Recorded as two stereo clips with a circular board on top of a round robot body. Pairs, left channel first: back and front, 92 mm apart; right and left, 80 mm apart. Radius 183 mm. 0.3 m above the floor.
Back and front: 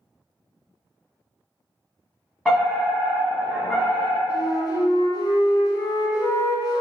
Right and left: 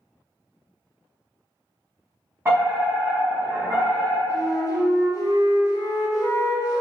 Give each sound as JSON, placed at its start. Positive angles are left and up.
{"t": 2.5, "sound": "a fire alarm", "azimuth_deg": 105, "distance_m": 1.9}
{"t": 4.3, "sound": "a flute", "azimuth_deg": -135, "distance_m": 0.7}